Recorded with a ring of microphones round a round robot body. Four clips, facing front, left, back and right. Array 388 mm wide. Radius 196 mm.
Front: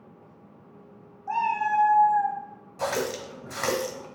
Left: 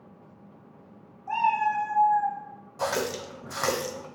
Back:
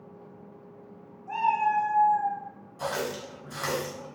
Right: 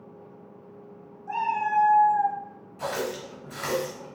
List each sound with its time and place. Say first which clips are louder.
1.3 s a cat meowing: left 2 dB, even; 20° left, 0.8 m; by 2.4 s 65° right, 0.6 m
2.8 s a running tap: left 2 dB, front 3 dB; 45° left, 0.7 m